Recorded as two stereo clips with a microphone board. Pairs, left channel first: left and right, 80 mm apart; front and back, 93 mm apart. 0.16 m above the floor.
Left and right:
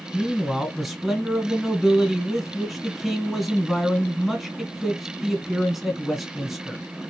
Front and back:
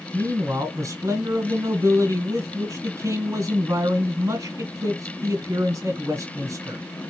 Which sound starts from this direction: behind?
A man speaking, at 0.1 s.